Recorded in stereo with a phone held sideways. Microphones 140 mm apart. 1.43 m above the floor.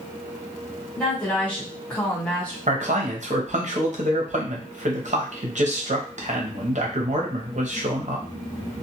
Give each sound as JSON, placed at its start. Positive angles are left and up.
{"t": 1.0, "sound": "a woman speaking", "side_deg": 10, "distance_m": 1.5}
{"t": 2.7, "sound": "a man speaking", "side_deg": -60, "distance_m": 0.9}